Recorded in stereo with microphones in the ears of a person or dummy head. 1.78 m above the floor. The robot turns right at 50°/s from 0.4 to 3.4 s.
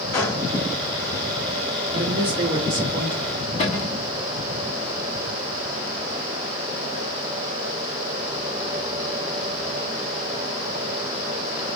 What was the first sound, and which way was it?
A gunshot, 15° left (ahead or behind).